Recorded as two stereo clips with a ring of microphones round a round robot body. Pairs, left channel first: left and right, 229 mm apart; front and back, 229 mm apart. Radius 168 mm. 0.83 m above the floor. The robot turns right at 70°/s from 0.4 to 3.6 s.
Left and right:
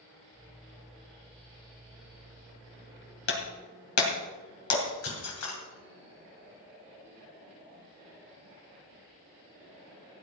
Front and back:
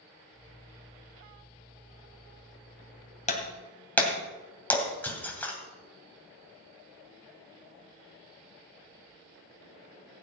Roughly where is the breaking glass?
Ahead left.